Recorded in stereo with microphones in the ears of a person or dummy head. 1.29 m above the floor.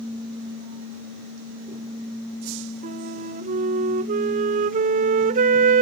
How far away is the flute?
About 0.8 m.